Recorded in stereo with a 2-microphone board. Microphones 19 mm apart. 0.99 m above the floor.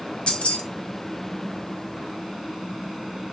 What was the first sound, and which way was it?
Keys jangling, 80° left.